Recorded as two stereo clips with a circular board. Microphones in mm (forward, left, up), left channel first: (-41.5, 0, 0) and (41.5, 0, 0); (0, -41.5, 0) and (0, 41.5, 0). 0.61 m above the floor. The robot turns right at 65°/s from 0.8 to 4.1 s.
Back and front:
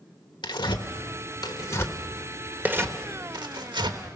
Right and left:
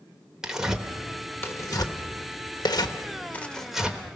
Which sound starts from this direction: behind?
Tearing paper, at 0.4 s.